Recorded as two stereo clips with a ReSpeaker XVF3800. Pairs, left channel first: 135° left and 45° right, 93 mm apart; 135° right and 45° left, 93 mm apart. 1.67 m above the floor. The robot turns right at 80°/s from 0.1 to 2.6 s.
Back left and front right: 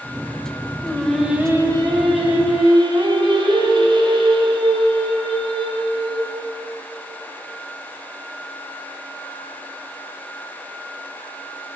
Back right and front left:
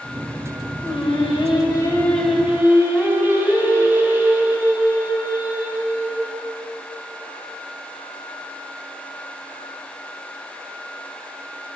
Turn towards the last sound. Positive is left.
turn(degrees=-20)